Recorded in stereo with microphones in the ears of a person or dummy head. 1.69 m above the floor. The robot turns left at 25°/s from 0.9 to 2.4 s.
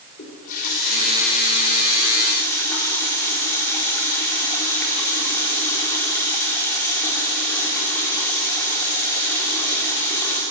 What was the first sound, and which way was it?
A running tap, 45° left.